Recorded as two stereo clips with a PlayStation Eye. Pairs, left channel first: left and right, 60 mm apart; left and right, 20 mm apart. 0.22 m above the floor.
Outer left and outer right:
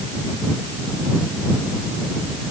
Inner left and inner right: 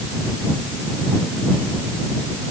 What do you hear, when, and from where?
Only background noise.